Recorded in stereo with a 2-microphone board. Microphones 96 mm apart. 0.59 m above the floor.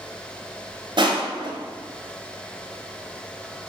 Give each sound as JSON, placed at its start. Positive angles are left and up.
{"t": 1.0, "sound": "crushing", "side_deg": -60, "distance_m": 0.9}